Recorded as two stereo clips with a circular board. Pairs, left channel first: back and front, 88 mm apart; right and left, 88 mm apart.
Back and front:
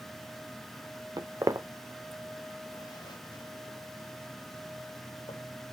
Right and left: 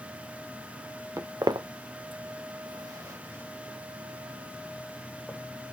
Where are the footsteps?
35° left, 0.8 m; by 5.4 s 165° left, 2.5 m.